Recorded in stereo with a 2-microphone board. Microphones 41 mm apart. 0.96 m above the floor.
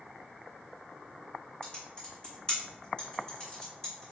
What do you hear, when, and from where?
1.6 s typing on a keyboard: 25° left (ahead or behind), 1.6 m